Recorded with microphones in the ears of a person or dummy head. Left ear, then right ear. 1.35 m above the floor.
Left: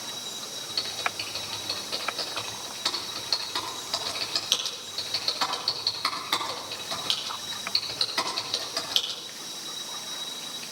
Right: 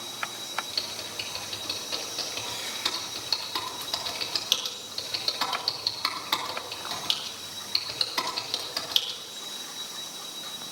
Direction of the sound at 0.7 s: 10° right (ahead or behind).